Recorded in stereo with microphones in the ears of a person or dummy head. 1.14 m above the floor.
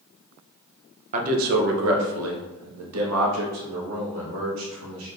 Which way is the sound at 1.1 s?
40° right (ahead or behind).